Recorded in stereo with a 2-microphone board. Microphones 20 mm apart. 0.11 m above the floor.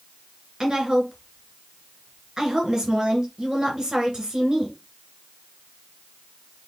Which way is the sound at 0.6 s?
30° right (ahead or behind).